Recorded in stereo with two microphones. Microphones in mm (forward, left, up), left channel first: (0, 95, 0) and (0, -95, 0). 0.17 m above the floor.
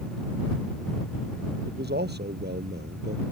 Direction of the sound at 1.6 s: 60° right (ahead or behind).